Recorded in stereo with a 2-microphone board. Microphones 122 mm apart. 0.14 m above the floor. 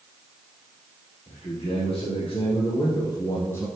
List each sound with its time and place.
1.3 s a man speaking: 60° left (ahead or behind), 3 m; by 3.7 s 20° left (ahead or behind), 1.4 m